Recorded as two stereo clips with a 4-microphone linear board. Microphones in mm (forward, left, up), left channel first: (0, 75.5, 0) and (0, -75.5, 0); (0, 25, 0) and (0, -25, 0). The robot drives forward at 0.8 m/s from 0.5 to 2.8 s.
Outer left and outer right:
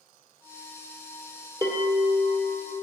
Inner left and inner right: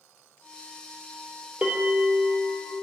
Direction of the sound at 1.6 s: 25° right (ahead or behind).